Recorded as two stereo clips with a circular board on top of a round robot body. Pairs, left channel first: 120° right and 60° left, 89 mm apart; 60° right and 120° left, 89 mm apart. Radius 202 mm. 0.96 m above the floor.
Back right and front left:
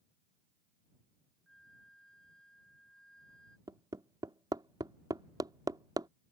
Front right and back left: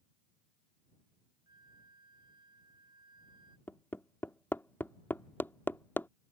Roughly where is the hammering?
Ahead.